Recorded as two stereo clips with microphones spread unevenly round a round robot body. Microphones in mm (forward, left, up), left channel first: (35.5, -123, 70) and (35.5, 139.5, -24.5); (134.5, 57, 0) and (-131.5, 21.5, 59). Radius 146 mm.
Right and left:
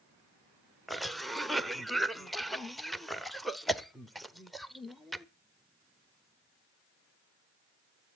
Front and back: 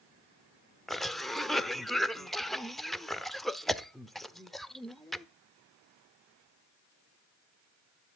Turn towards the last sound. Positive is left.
turn(degrees=60)